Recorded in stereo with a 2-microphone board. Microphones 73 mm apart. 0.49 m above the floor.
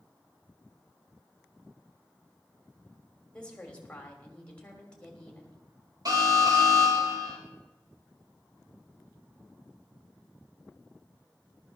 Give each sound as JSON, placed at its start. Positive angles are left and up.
{"t": 3.3, "sound": "a woman speaking", "side_deg": 15, "distance_m": 2.5}
{"t": 6.0, "sound": "an alarm", "side_deg": -55, "distance_m": 2.5}